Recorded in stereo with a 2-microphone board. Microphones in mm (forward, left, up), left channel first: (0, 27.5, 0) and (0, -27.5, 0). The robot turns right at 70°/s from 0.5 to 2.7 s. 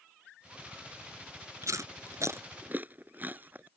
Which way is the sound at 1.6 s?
70° right (ahead or behind).